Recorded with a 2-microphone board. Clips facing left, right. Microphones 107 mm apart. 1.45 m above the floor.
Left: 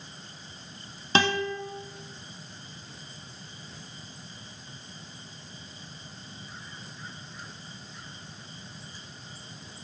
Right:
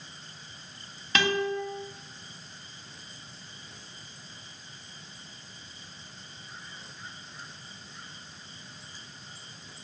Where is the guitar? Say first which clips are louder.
Left 1 dB; 30° left (ahead or behind), 1.6 m.